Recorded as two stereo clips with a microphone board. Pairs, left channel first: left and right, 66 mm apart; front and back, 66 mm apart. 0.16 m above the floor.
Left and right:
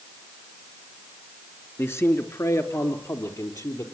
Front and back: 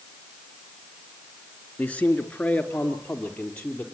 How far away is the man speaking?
About 2.5 m.